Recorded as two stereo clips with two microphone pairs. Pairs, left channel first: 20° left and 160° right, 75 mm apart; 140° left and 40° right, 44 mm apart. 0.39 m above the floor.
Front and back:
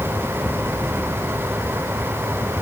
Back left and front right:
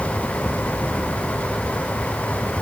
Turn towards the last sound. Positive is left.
No sound to turn to.